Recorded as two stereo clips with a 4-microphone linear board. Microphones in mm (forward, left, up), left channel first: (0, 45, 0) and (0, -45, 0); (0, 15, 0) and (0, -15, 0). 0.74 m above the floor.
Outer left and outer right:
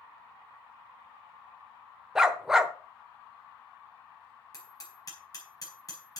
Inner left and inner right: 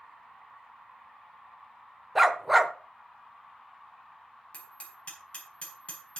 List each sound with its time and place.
2.1 s a dog barking: 5° right (ahead or behind), 0.9 m
4.5 s hammering: 40° left (ahead or behind), 5.5 m